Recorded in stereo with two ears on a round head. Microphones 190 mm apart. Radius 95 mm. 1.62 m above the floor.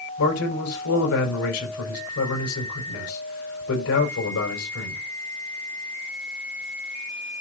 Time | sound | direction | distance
0.2 | a man speaking | 75° left (ahead or behind) | 4.5 m